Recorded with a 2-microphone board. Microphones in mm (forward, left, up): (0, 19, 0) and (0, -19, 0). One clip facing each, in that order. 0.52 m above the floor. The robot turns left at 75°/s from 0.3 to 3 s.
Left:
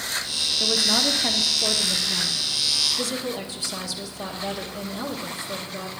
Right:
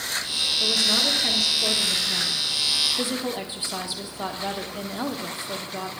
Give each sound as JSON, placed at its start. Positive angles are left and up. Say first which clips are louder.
{"t": 0.6, "sound": "a woman speaking", "louder": "left 1 dB", "side_deg": 25, "distance_m": 1.4}